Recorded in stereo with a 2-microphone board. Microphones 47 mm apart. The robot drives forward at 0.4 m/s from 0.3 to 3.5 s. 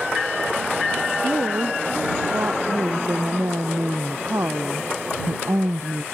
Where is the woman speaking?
65° right (ahead or behind).